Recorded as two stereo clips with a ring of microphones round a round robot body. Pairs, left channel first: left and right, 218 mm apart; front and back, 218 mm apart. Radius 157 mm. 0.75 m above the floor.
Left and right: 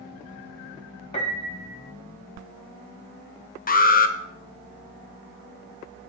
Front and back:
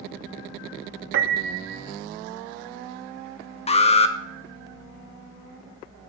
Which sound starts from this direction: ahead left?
An alarm, at 3.7 s.